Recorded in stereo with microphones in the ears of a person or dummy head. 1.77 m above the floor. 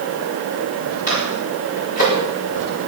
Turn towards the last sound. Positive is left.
turn(degrees=45)  # may be behind; listen again after turning